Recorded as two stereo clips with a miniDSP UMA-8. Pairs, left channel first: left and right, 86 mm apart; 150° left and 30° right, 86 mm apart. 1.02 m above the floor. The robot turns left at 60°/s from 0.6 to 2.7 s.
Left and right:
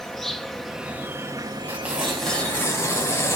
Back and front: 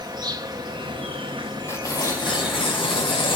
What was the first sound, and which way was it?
An insect, 5° left.